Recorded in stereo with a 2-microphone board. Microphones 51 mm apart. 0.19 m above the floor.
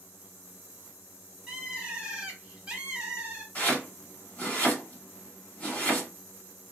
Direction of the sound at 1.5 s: 15° right (ahead or behind).